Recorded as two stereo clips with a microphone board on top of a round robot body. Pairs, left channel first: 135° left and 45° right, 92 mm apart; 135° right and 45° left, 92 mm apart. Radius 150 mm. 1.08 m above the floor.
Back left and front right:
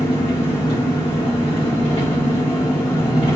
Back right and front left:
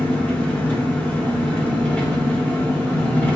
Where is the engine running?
150° left, 1.9 m.